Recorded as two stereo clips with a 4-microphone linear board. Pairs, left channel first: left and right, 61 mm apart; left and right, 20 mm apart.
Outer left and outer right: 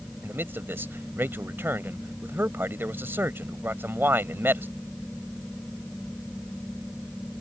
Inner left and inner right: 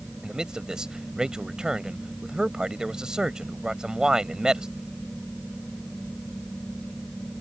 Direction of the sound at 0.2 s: 40° right (ahead or behind).